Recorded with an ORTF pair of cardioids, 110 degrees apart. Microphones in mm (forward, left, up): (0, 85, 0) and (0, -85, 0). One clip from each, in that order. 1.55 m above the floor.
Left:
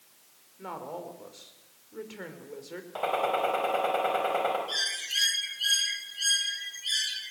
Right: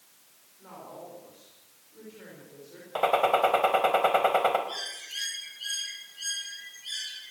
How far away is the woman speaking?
About 5.5 m.